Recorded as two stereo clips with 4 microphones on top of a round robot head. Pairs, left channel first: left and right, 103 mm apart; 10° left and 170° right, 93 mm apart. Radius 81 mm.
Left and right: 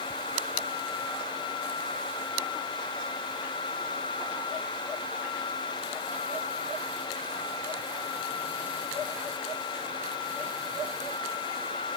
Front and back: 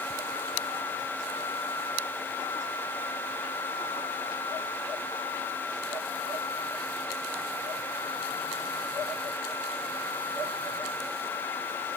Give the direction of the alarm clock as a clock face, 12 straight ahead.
No alarm clock in this recording.